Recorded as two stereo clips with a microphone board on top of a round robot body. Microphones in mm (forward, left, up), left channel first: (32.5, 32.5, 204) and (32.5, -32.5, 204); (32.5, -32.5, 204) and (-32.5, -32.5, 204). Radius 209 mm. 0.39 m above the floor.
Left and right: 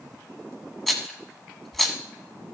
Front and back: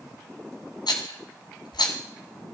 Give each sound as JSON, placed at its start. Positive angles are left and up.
{"t": 0.9, "sound": "a rattle", "azimuth_deg": 5, "distance_m": 1.3}